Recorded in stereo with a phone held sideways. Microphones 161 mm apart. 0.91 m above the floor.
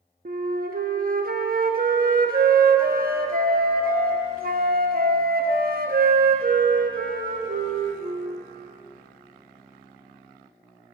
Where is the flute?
60° right (ahead or behind), 0.7 m.